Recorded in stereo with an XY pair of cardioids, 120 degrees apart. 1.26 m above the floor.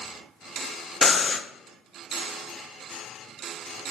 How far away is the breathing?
About 0.5 m.